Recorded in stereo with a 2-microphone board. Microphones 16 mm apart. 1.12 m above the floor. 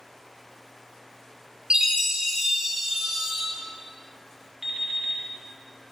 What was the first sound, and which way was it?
A chime, 45° right (ahead or behind).